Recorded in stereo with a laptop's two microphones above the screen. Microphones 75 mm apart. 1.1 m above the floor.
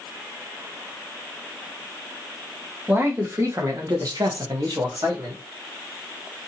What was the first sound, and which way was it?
A man speaking, 30° right (ahead or behind).